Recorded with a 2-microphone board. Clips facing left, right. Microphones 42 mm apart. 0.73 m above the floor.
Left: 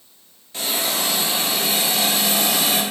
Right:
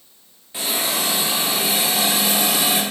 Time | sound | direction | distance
0.5 | a hiss | 15° right (ahead or behind) | 0.9 m